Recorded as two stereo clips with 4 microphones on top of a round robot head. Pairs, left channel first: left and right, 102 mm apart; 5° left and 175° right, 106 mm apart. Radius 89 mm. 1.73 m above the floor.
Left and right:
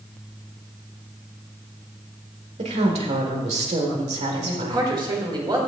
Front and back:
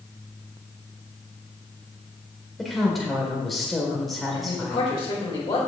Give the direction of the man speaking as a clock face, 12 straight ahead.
2 o'clock.